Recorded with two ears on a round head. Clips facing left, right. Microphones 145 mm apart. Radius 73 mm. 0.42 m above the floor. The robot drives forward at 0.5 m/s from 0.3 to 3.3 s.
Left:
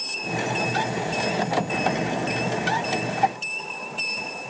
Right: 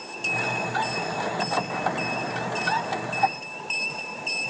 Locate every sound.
Only background noise.